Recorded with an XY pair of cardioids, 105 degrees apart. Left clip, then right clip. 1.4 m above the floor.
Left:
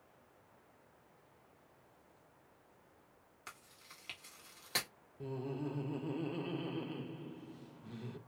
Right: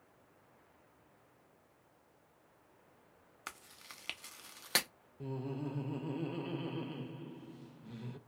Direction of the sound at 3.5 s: 55° right.